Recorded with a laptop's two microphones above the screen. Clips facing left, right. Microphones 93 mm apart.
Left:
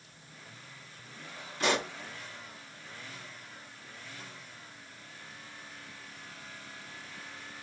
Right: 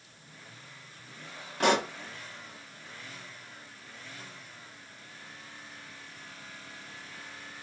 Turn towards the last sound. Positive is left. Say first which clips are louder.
# right 5 dB
turn(degrees=-60)  # may be behind; listen again after turning